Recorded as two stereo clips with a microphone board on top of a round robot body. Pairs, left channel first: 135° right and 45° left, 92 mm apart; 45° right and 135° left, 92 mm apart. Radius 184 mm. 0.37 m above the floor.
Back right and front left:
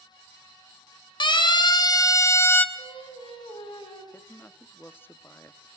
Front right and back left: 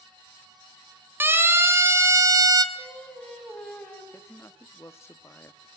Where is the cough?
I don't hear a cough.